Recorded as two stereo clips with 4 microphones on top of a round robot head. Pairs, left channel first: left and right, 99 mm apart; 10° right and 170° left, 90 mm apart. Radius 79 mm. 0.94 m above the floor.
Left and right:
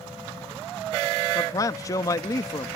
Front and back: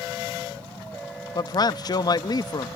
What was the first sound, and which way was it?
A man speaking, 30° left.